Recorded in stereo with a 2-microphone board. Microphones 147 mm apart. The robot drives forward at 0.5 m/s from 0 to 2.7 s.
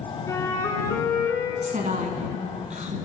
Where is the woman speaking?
60° right (ahead or behind), 1.8 m.